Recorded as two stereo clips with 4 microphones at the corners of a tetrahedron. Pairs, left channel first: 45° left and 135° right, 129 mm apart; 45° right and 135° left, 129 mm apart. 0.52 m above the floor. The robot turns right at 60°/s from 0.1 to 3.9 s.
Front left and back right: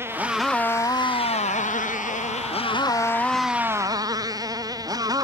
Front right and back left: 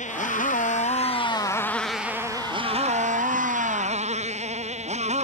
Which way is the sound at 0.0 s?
65° right.